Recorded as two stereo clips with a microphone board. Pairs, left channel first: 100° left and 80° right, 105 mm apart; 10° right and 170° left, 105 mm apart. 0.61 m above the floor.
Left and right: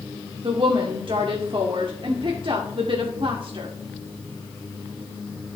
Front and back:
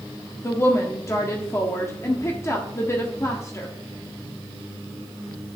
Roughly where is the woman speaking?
Right.